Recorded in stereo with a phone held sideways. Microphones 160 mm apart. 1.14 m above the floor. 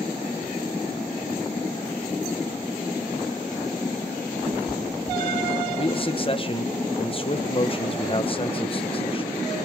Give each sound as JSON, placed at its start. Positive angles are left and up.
{"t": 4.5, "sound": "a cat meowing", "side_deg": -55, "distance_m": 1.0}
{"t": 5.8, "sound": "a man speaking", "side_deg": 35, "distance_m": 1.0}